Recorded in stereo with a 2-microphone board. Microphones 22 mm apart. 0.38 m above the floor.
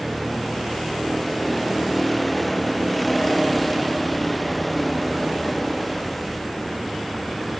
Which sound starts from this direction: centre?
A vehicle, at 0.0 s.